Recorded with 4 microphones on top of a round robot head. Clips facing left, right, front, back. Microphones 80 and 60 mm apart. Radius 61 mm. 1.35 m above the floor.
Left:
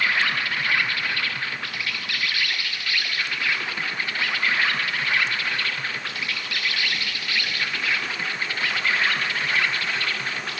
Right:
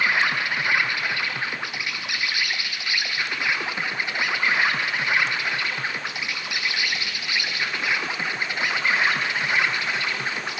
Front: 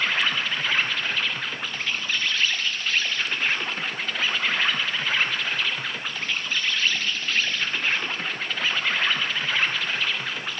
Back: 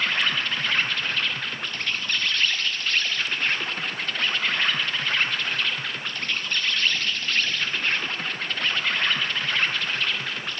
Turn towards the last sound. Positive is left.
turn(degrees=-80)